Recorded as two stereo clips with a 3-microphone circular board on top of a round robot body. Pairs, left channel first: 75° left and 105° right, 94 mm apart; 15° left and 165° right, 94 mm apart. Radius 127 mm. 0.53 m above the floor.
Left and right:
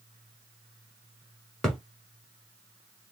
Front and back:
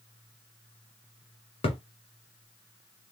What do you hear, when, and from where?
1.6 s a thud: 10° right, 1.5 m